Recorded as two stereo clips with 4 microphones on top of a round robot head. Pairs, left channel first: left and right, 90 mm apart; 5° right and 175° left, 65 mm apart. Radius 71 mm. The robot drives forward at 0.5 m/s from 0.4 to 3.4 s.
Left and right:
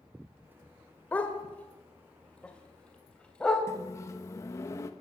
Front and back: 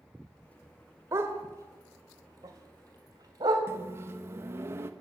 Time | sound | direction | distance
1.1 | a dog barking | 155° left | 1.6 m
3.7 | a microwave | 140° left | 1.2 m